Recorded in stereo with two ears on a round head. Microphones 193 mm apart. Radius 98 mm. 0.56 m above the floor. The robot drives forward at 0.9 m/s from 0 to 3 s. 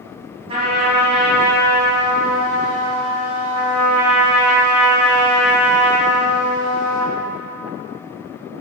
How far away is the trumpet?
About 2.5 m.